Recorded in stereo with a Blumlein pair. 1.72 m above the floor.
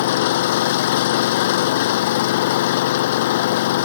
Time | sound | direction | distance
0.0 | an engine running | 55° left | ?